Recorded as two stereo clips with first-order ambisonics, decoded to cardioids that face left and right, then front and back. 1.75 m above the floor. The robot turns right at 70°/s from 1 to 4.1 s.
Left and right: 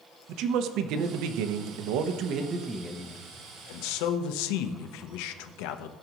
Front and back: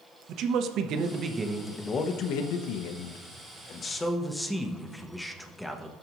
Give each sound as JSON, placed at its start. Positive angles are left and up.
{"t": 0.3, "sound": "a man speaking", "azimuth_deg": -130, "distance_m": 0.8}